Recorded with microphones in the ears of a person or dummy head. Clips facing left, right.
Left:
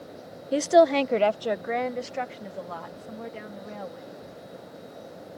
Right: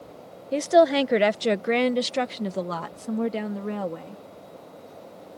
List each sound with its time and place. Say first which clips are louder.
0.5 s a woman speaking: even; 10° left (ahead or behind); by 4.2 s 80° right